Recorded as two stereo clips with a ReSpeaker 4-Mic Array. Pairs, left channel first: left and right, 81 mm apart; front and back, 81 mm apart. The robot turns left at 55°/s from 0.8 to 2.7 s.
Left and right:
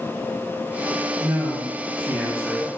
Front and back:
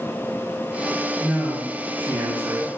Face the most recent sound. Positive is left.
turn(degrees=165)